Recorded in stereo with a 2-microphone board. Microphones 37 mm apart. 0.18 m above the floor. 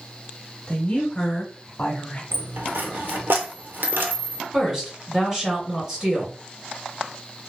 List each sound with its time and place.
0.7 s a woman speaking: 25° left (ahead or behind), 1.4 m; by 2.2 s 35° left (ahead or behind), 1.3 m
2.3 s a dropped coin: 80° right, 0.7 m
4.5 s a woman speaking: 15° right (ahead or behind), 1.6 m